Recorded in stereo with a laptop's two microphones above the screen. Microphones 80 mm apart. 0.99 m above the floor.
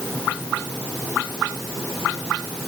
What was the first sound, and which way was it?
Only background noise.